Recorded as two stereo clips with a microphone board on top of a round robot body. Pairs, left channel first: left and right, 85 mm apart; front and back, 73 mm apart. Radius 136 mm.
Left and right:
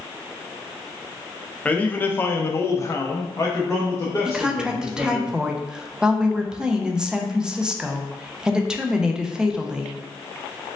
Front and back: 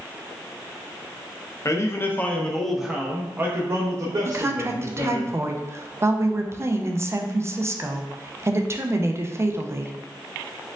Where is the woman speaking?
165° right, 0.7 m.